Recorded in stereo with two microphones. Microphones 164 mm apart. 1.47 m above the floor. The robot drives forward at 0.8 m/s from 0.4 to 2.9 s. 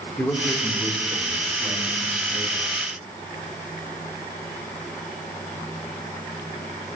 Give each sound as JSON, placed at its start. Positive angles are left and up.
{"t": 0.2, "sound": "a man speaking", "side_deg": 10, "distance_m": 1.6}